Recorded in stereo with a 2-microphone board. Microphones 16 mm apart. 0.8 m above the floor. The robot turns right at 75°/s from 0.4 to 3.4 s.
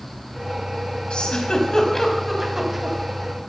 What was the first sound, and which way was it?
A giggle, 85° left.